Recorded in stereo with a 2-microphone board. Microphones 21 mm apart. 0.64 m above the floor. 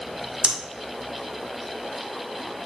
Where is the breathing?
50° right (ahead or behind), 0.7 m.